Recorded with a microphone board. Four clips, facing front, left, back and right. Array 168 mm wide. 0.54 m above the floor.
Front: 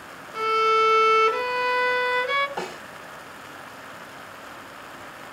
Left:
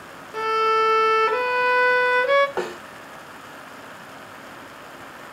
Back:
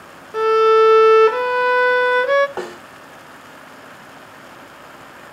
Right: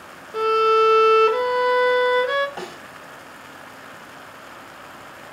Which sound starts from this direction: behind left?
A snare drum, at 2.6 s.